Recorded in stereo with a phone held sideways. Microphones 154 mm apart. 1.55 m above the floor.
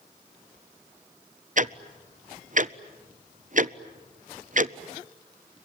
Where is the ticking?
55° right (ahead or behind), 0.6 m.